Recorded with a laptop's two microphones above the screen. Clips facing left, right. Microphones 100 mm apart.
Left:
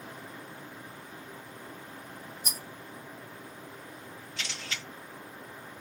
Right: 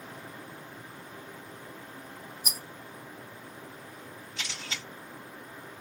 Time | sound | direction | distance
2.4 | a rattle | 10° right (ahead or behind) | 0.5 m
4.4 | a camera shutter | 25° right (ahead or behind) | 3 m